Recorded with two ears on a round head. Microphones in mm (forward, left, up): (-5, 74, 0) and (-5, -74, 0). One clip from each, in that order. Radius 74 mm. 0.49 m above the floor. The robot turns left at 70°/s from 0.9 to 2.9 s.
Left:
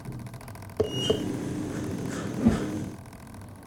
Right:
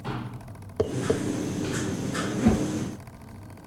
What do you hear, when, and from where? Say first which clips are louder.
0.8 s tapping: even; centre (ahead or behind), 0.8 m; by 1.2 s 10° left (ahead or behind), 0.8 m
2.4 s a whoosh: right 1 dB; 75° right (ahead or behind), 3.5 m; by 2.7 s 50° right (ahead or behind), 3.5 m